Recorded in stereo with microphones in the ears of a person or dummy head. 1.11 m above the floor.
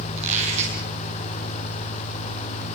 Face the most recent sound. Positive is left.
turn(degrees=-40)  # may be behind; listen again after turning